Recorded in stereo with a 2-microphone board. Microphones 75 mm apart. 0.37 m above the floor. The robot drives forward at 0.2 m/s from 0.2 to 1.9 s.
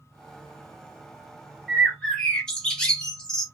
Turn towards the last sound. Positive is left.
turn(degrees=10)  # may be behind; listen again after turning